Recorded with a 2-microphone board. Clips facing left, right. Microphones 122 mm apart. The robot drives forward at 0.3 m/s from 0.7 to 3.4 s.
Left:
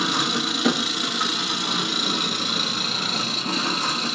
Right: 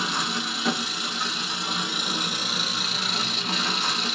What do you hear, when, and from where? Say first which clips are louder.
0.0 s an engine running: left 4 dB; 80° left, 0.7 m; by 4.2 s 45° left (ahead or behind), 1.0 m